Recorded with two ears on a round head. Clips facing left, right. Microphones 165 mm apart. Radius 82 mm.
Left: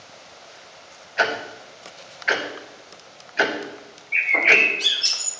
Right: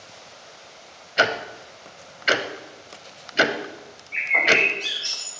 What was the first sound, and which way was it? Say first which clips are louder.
Ticking: right 1 dB; 45° right (ahead or behind).